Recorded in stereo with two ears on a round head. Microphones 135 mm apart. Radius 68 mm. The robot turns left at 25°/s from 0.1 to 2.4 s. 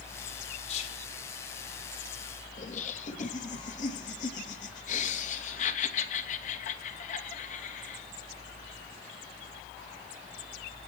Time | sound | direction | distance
0.7 | whispering | 45° left (ahead or behind) | 4 m
2.6 | laughter | 50° left (ahead or behind) | 2.5 m